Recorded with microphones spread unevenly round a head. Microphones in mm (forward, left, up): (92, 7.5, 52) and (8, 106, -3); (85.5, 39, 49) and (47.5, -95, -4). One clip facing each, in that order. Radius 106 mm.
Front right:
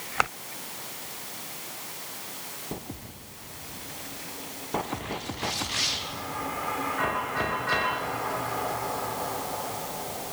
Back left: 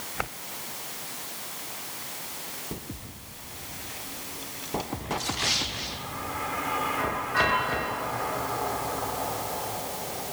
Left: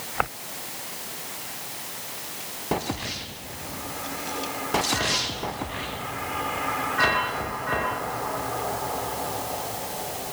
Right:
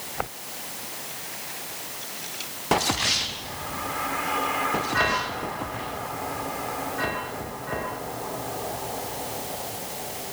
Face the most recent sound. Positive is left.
No sound to turn to.